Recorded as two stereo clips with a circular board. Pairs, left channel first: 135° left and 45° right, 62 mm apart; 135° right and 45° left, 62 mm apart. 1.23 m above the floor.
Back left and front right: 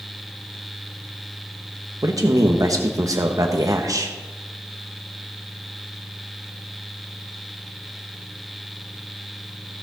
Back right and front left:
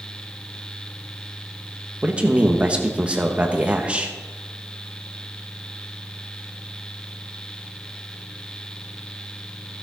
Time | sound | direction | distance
2.0 | a man speaking | 25° right | 1.3 m